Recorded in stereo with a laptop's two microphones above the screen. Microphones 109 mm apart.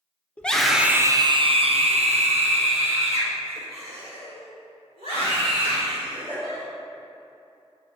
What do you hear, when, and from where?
0.4 s a scream: 10° left (ahead or behind), 0.6 m; by 6.6 s 60° right (ahead or behind), 3.5 m